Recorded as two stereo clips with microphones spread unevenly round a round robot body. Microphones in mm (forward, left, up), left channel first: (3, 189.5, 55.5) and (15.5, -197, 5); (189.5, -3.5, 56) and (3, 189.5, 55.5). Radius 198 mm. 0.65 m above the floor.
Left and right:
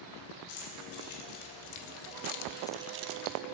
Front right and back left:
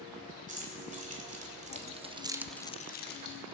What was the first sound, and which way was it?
Keys jangling, 70° left.